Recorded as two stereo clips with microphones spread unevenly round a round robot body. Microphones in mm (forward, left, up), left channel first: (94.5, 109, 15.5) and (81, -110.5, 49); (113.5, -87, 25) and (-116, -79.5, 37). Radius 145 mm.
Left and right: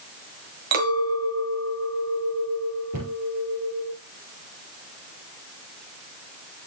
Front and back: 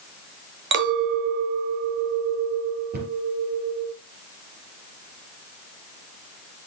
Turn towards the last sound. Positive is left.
turn(degrees=-135)